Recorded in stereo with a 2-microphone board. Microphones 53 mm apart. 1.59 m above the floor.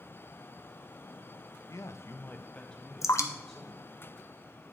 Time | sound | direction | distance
1.7 | a man speaking | 80° left | 0.7 m
3.0 | dripping | 75° left (ahead or behind) | 0.7 m